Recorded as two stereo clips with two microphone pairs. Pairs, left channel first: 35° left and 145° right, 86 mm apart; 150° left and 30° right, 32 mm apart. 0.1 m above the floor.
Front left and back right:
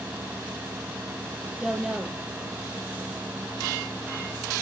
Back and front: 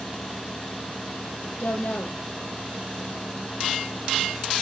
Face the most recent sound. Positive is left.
turn(degrees=135)